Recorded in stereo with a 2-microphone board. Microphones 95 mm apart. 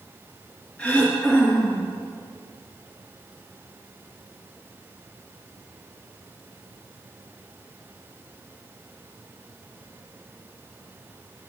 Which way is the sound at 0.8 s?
20° left (ahead or behind).